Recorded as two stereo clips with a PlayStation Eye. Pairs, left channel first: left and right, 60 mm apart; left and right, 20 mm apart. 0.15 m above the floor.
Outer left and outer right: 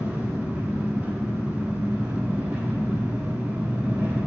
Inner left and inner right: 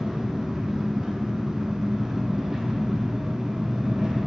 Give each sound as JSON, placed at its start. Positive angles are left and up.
{"t": 0.0, "sound": "an engine running", "side_deg": -25, "distance_m": 1.4}